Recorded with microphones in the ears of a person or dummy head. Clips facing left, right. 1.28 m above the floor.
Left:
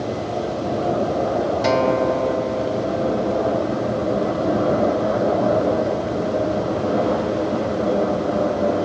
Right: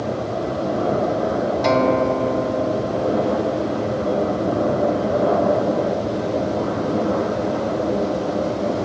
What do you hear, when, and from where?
1.6 s a guitar: 5° left (ahead or behind), 0.8 m